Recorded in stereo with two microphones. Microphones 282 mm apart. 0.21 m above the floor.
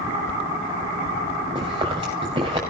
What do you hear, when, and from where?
1.6 s chewing: 15° right (ahead or behind), 6.5 m